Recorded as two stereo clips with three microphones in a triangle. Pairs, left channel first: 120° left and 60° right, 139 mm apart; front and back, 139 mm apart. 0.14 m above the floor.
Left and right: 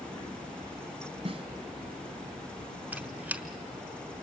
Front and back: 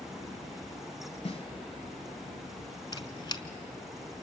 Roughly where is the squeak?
Ahead.